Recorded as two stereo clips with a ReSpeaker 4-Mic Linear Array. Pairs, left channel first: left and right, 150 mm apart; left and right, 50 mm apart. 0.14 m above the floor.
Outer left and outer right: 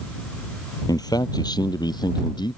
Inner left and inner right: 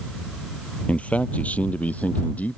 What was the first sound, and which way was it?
A man speaking, 25° left (ahead or behind).